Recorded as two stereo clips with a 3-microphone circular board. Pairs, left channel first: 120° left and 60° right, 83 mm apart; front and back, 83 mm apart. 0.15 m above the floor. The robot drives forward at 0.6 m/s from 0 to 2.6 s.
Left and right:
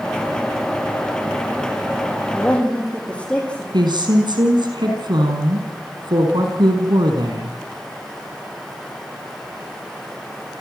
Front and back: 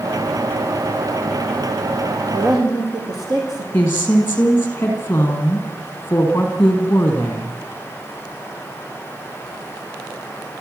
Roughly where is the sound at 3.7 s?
Ahead right.